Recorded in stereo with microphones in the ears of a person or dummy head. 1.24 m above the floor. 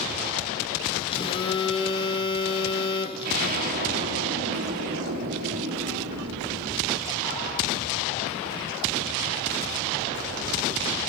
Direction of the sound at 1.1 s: 25° left (ahead or behind).